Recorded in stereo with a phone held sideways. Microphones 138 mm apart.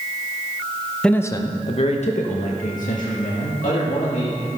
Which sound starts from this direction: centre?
A man speaking, at 1.0 s.